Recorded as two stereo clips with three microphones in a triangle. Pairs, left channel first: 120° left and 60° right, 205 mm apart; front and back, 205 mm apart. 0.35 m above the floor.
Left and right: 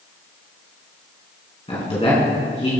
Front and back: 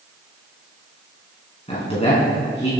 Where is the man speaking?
60° left, 3.5 m.